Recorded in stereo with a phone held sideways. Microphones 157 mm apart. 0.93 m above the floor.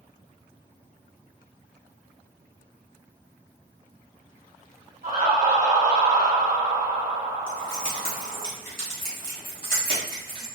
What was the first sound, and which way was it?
Laughter, 65° right (ahead or behind).